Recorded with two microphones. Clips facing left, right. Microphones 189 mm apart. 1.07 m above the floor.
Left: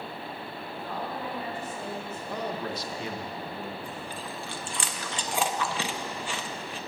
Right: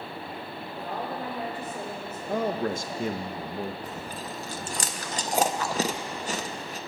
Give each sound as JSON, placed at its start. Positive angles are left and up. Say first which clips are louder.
{"t": 0.8, "sound": "a woman speaking", "louder": "right 2 dB", "side_deg": -45, "distance_m": 3.5}
{"t": 2.3, "sound": "a man speaking", "louder": "right 7 dB", "side_deg": -50, "distance_m": 0.6}
{"t": 3.8, "sound": "chewing", "louder": "right 1 dB", "side_deg": -40, "distance_m": 0.5}